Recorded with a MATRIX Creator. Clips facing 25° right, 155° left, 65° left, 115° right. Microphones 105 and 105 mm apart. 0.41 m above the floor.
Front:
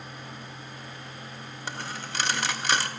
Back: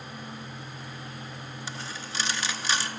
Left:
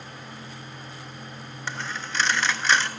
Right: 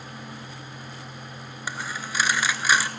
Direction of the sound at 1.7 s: 35° right.